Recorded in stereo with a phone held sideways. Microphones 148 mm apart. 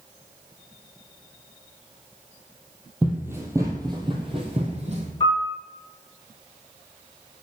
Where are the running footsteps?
10° right (ahead or behind), 1.7 m; by 5.1 s 50° right (ahead or behind), 2 m.